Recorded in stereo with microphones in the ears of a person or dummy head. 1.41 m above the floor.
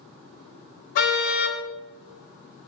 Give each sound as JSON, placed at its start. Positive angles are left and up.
{"t": 0.9, "sound": "a car horn", "side_deg": 60, "distance_m": 4.5}